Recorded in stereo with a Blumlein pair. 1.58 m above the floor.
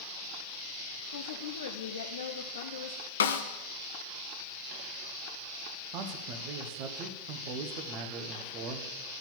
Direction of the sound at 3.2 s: 70° left.